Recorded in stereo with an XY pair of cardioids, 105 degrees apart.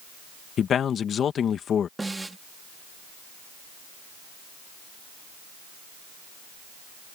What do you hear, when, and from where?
0.6 s a man speaking: 55° left
2.0 s a snare drum: 15° right